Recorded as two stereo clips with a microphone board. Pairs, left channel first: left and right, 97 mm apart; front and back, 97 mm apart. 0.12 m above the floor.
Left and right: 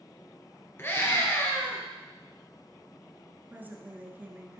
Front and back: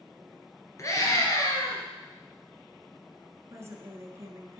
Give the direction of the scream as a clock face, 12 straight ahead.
11 o'clock.